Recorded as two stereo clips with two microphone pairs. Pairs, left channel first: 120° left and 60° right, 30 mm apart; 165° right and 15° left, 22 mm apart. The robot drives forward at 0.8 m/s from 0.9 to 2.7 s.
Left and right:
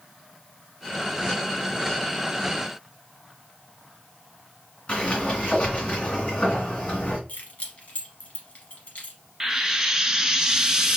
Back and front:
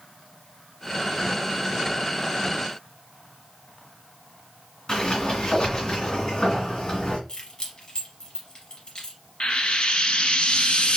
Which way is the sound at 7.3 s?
150° left.